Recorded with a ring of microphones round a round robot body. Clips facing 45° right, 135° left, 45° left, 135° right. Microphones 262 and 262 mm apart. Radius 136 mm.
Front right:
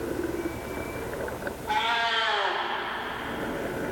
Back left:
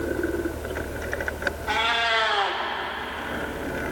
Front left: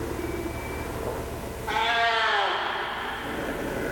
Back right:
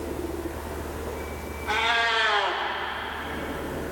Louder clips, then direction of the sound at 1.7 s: Back left 3 dB, front left 2 dB; 150° left.